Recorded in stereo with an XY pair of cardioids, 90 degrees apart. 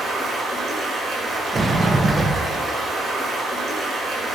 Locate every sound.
0.0 s running water: 60° right, 3.5 m
1.5 s a sliding door: 40° right, 1.1 m